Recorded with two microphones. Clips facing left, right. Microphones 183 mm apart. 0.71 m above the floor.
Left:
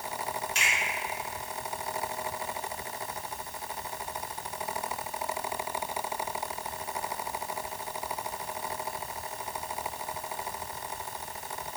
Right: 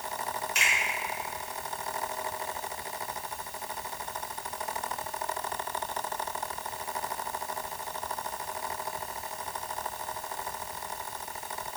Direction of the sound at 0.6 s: 30° left (ahead or behind).